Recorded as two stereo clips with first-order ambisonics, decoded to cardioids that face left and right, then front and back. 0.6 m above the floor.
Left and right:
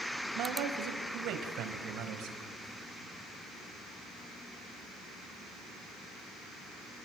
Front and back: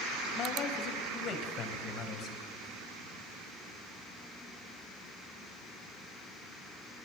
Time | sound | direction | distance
0.3 | a man speaking | 55° right | 3.5 m